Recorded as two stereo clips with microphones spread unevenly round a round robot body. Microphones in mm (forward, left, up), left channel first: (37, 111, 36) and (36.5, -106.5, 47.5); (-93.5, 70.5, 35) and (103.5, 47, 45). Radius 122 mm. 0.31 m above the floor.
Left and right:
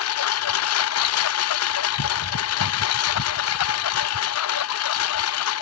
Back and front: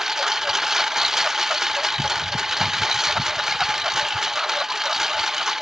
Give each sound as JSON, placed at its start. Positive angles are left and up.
{"t": 0.0, "sound": "a lawn mower", "azimuth_deg": 80}